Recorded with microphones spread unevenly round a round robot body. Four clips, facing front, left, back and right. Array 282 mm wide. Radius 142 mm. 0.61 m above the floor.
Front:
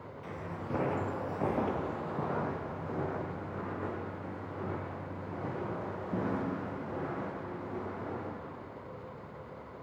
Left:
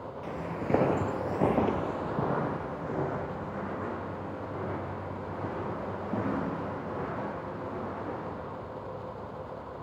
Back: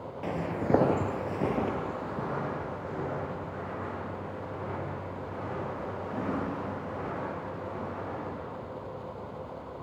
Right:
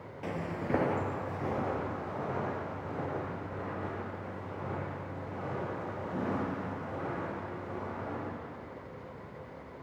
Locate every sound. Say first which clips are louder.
0.2 s footsteps: left 1 dB, back 10 dB; 155° right, 0.9 m; by 8.3 s 70° left, 6 m